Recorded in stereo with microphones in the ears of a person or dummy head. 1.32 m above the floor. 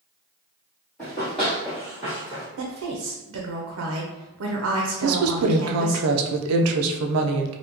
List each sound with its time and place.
1.0 s running footsteps: 5° left (ahead or behind), 1.6 m; by 2.5 s 15° right (ahead or behind), 1.3 m
2.6 s a woman speaking: 80° right, 0.7 m
5.0 s a woman speaking: 85° right, 0.5 m